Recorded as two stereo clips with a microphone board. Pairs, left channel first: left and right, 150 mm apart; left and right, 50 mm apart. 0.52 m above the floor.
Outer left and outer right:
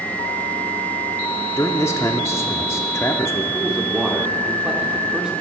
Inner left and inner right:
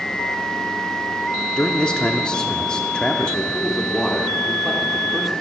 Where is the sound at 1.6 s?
20° left (ahead or behind), 0.8 m.